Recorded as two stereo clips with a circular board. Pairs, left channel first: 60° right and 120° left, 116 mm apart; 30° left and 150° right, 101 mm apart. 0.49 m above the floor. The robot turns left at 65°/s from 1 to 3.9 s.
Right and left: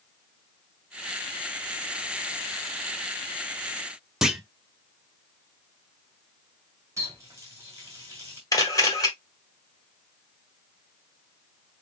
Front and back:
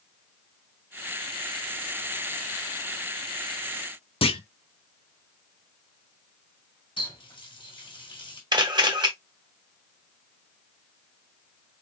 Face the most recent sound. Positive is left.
turn(degrees=-115)